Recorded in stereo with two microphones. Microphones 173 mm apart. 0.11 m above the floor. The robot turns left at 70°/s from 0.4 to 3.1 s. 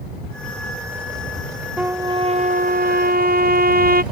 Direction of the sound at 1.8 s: 10° right.